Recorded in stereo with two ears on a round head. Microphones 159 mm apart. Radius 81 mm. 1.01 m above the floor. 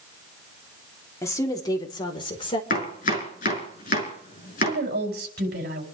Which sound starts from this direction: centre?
A woman speaking, at 1.2 s.